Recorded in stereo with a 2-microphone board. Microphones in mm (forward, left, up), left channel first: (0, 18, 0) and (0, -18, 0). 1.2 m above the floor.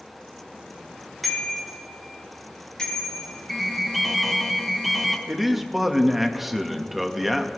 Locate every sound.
1.2 s a bicycle bell: centre (ahead or behind), 4.5 m; by 3.3 s 20° left (ahead or behind), 5.5 m
3.5 s an alarm: centre (ahead or behind), 1.7 m
5.3 s a man speaking: 5° right (ahead or behind), 1.4 m